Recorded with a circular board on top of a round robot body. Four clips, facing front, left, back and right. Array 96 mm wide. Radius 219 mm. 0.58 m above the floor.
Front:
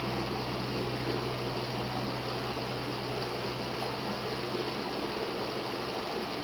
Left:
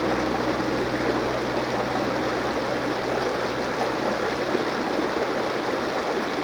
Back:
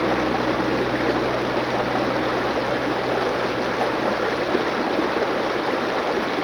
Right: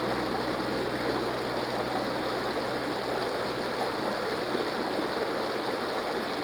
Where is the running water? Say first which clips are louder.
Left 6 dB, back 14 dB; 165° left, 1.0 m.